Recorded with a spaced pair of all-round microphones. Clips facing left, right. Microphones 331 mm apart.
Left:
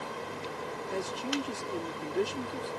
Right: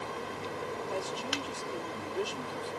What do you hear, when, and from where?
0.9 s a man speaking: 35° left (ahead or behind)